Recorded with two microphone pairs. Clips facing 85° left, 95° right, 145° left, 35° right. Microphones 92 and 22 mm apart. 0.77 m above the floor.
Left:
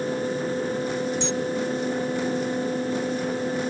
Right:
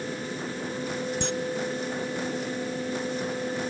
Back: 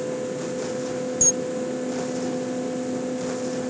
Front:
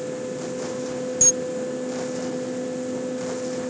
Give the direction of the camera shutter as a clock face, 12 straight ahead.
3 o'clock.